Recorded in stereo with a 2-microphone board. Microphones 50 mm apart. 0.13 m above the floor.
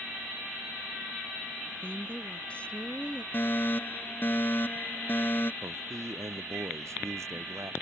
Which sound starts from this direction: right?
A man speaking, at 5.6 s.